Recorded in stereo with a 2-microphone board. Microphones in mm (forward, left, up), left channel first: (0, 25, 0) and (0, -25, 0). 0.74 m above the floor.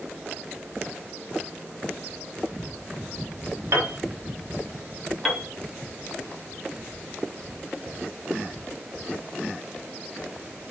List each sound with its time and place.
3.7 s a piano: 60° right (ahead or behind), 1.1 m
5.2 s a piano: 5° left (ahead or behind), 0.7 m